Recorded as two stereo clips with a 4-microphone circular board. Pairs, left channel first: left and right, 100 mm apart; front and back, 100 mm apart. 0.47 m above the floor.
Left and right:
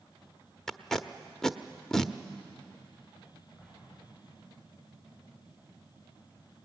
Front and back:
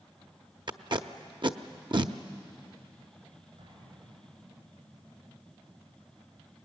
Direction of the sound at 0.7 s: 175° left.